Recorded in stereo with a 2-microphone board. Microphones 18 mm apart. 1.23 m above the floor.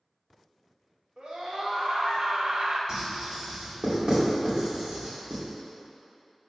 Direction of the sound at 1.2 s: 80° right.